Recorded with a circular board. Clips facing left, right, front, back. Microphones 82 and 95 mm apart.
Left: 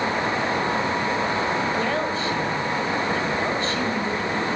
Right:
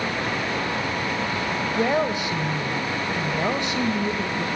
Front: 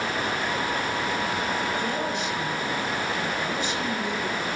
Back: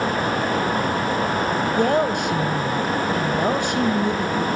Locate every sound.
1.7 s a woman speaking: 160° right, 3 m